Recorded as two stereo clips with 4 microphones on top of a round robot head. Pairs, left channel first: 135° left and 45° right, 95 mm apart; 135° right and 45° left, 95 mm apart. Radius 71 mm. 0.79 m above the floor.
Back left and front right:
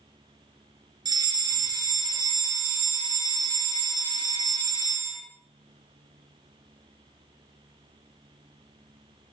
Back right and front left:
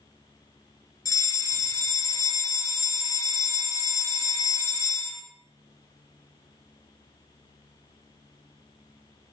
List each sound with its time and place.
1.1 s a fire alarm: 85° right, 5 m